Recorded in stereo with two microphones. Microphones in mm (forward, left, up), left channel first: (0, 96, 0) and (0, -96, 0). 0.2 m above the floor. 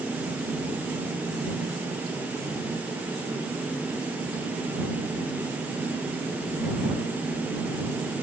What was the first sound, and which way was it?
Only background noise.